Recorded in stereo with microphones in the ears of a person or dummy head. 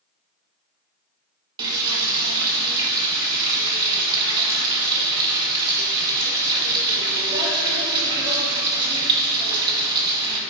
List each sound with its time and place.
1.6 s frying: 20° right (ahead or behind), 1.2 m